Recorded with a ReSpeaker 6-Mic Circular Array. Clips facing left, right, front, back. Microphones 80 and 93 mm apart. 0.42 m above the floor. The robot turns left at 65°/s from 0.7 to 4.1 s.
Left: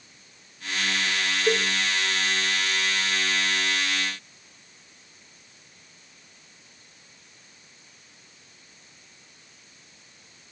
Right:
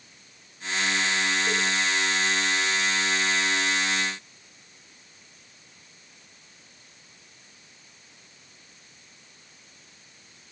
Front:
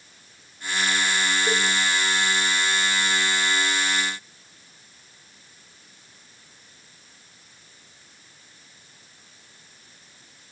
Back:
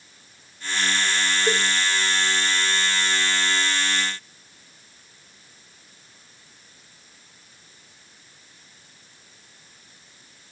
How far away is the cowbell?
About 2.5 m.